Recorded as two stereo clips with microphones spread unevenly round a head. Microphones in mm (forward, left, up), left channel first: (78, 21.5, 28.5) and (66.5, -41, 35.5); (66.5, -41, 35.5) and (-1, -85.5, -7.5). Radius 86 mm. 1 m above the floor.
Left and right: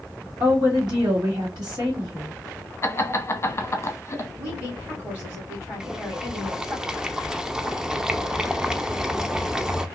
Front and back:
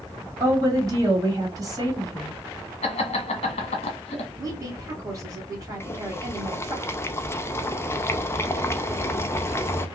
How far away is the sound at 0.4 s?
About 1.7 m.